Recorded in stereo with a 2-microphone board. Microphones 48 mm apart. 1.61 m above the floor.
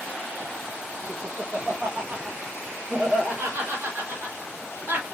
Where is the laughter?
60° right (ahead or behind), 1.5 m; by 5.0 s 45° right (ahead or behind), 4 m.